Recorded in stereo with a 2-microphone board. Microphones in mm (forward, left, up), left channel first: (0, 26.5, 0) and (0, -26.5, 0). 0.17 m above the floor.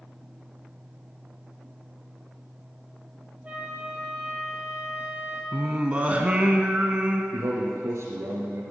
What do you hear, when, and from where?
3.4 s a flute: 25° right (ahead or behind), 2.0 m
5.5 s singing: 25° right (ahead or behind), 1.0 m
7.3 s a man speaking: 65° right (ahead or behind), 2.5 m